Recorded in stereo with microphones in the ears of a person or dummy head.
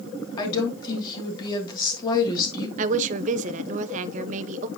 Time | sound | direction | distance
0.4 | a woman speaking | 25° left (ahead or behind) | 2.5 m
2.8 | a woman speaking | 40° right (ahead or behind) | 0.6 m